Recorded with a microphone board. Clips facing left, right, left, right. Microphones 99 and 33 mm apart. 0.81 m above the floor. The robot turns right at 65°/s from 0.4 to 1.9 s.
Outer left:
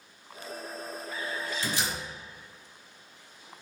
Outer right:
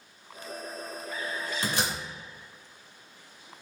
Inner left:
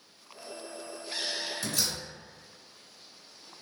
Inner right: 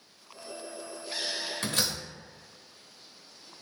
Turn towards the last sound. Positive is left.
turn(degrees=-75)  # may be behind; listen again after turning